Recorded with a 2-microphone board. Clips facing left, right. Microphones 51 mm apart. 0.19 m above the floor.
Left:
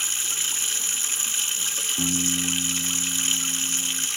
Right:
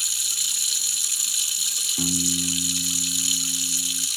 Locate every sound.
0.0 s running water: 35° left (ahead or behind), 0.8 m
2.0 s a piano: 5° right (ahead or behind), 0.7 m